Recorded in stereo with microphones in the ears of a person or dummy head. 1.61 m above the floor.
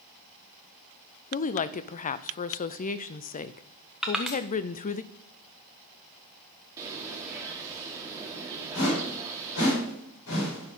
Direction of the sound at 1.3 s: 35° left (ahead or behind).